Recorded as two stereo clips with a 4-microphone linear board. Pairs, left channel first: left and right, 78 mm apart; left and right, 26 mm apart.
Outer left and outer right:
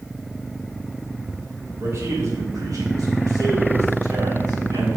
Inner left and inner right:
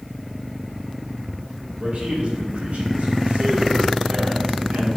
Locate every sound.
1.8 s a man speaking: 45° right (ahead or behind), 4 m; by 4.9 s 80° right, 4.5 m